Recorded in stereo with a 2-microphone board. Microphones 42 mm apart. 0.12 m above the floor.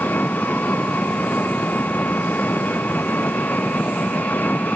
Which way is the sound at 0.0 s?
50° left (ahead or behind).